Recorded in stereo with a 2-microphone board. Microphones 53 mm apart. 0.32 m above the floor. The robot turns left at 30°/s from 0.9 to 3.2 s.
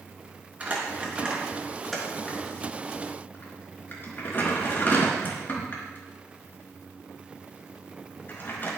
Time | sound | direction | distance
0.6 | crumpling | 25° right (ahead or behind) | 4 m